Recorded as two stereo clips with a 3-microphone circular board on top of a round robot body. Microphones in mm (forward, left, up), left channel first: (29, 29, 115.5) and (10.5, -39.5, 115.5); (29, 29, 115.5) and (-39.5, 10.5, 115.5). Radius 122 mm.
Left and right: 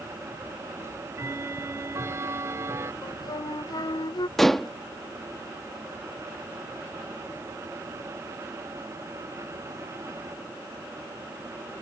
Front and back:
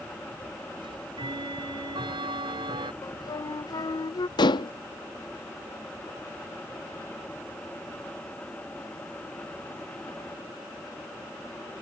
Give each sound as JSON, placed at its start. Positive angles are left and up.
{"t": 0.8, "sound": "ticking", "azimuth_deg": -160}
{"t": 3.0, "sound": "a flute", "azimuth_deg": 45}
{"t": 4.4, "sound": "dishes clattering", "azimuth_deg": -10}